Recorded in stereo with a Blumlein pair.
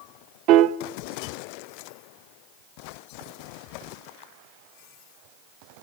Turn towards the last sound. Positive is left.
turn(degrees=-40)